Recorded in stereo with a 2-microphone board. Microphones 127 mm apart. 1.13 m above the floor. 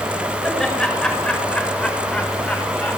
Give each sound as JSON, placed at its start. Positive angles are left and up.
{"t": 0.4, "sound": "laughter", "side_deg": 5, "distance_m": 6.5}